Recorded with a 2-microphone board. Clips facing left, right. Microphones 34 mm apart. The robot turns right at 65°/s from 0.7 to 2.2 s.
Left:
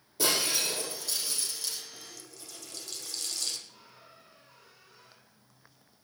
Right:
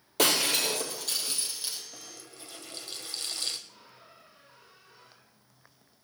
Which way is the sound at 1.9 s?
55° right (ahead or behind).